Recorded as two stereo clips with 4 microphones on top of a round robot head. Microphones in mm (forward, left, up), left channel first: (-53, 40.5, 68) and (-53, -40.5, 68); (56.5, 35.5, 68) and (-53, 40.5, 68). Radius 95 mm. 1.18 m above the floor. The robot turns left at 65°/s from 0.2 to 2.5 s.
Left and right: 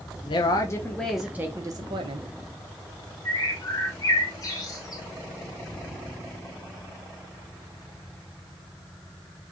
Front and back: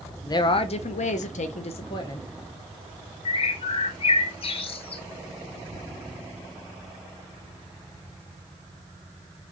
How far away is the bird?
About 0.6 m.